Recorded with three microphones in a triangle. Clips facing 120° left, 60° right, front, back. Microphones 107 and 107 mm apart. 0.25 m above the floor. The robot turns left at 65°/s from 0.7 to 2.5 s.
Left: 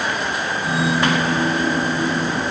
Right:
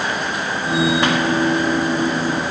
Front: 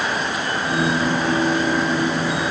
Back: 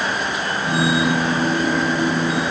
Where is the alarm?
I don't hear an alarm.